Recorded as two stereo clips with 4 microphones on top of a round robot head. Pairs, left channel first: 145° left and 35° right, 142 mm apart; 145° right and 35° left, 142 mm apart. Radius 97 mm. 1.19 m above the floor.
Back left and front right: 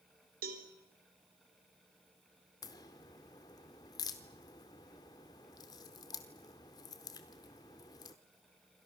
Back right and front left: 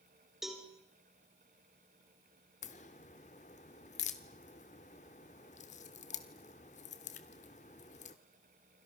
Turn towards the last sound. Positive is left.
turn(degrees=-160)